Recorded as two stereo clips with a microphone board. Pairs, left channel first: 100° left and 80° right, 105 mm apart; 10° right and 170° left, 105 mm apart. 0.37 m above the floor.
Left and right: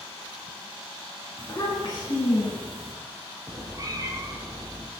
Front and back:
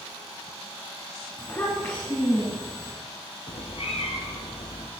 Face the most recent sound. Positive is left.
turn(degrees=-25)